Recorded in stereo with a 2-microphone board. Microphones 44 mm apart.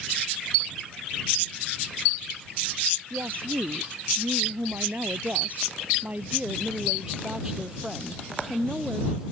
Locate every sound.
3.1 s a woman speaking: 65° right (ahead or behind); by 9.2 s 10° right (ahead or behind)